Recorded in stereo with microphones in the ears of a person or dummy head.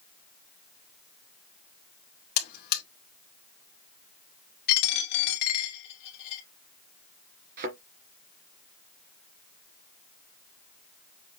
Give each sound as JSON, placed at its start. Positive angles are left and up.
{"t": 2.4, "sound": "a buzzer", "side_deg": 55, "distance_m": 2.5}
{"t": 4.7, "sound": "a dropped coin", "side_deg": 60, "distance_m": 2.5}
{"t": 7.6, "sound": "a thud", "side_deg": -50, "distance_m": 3.0}